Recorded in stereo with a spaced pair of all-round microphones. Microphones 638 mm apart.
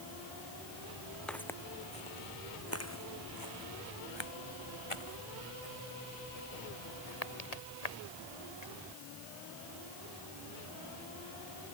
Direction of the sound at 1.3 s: Centre (ahead or behind).